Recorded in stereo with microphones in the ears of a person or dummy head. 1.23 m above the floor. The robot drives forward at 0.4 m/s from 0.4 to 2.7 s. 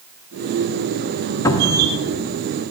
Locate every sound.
1.4 s a cupboard door: 20° left (ahead or behind), 1.2 m; by 1.9 s 15° left (ahead or behind), 1.3 m